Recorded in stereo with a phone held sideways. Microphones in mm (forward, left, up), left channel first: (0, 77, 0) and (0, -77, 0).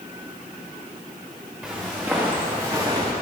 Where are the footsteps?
10° right (ahead or behind), 4.5 m; by 3.1 s 25° right (ahead or behind), 3.5 m.